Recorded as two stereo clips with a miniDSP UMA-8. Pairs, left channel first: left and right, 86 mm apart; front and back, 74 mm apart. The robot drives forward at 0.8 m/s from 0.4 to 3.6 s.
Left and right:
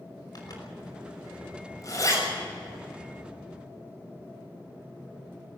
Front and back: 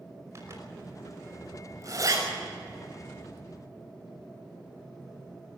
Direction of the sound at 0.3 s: 130° left.